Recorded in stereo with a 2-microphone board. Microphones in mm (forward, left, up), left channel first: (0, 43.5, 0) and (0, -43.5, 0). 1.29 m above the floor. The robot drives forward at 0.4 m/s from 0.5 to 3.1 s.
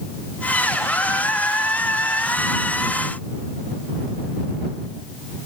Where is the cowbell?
I don't hear a cowbell.